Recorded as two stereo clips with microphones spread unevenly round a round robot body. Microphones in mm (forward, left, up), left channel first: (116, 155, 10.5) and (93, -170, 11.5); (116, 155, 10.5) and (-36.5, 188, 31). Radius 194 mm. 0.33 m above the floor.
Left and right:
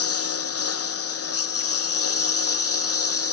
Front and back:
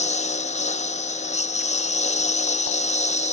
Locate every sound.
0.0 s a lawn mower: 35° left